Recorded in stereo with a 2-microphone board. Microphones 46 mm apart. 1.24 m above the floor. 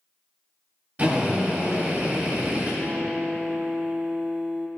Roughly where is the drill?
Right.